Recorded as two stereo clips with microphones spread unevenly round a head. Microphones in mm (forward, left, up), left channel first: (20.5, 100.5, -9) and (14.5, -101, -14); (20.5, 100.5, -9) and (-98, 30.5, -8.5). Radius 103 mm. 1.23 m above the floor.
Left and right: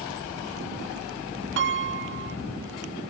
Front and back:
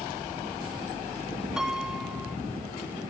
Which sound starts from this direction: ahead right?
A piano, at 1.6 s.